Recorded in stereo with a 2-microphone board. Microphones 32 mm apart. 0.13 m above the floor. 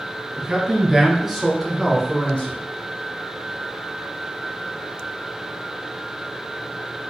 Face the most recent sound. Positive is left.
turn(degrees=35)  # may be behind; listen again after turning